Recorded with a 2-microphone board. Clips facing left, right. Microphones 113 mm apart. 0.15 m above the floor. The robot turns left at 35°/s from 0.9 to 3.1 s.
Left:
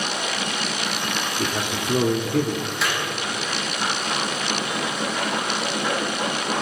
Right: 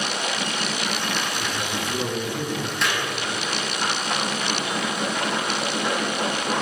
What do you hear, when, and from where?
1.4 s a man speaking: 125° left, 3.5 m; by 2.6 s 85° left, 3.5 m
2.8 s a clap: centre (ahead or behind), 7 m; by 3.0 s 10° left (ahead or behind), 7 m